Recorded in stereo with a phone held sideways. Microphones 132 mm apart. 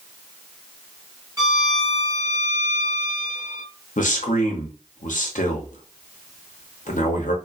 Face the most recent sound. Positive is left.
turn(degrees=75)  # may be behind; listen again after turning